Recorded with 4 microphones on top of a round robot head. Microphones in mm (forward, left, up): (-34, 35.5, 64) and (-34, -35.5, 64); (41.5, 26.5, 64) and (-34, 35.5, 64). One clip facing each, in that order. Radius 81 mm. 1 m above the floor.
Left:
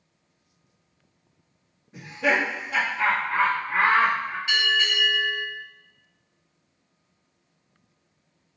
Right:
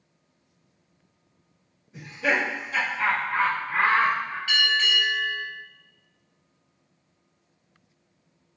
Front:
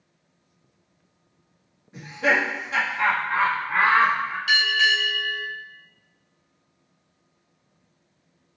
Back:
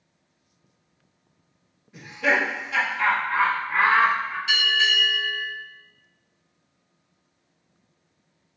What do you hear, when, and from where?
1.9 s laughter: 50° left, 1.5 m
4.5 s a bell: 20° left, 1.7 m